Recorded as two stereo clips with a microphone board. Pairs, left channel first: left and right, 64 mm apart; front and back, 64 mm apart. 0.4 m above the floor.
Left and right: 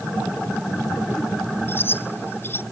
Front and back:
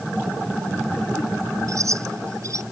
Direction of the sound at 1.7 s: 145° left.